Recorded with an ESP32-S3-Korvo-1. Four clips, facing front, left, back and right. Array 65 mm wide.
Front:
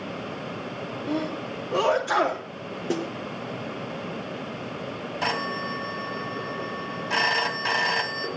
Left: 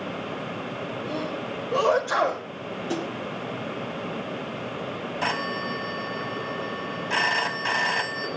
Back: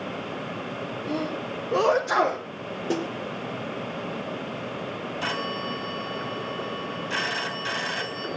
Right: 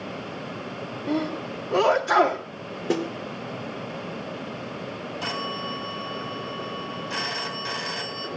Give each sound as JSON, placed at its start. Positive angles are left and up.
{"t": 1.1, "sound": "a sneeze", "azimuth_deg": -70, "distance_m": 3.0}
{"t": 2.9, "sound": "a snare drum", "azimuth_deg": -85, "distance_m": 2.5}
{"t": 5.2, "sound": "a phone ringing", "azimuth_deg": 35, "distance_m": 2.5}